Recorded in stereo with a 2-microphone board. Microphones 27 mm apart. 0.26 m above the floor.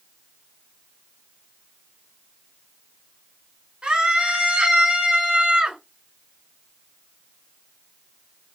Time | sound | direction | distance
3.8 | a scream | 35° right (ahead or behind) | 3 m